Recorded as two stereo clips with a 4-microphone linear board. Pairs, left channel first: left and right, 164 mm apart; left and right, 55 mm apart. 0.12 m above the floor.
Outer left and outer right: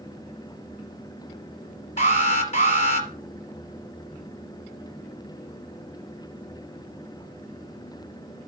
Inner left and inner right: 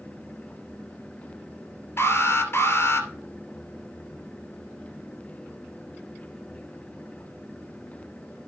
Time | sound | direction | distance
2.0 | an alarm | 45° left (ahead or behind) | 3 m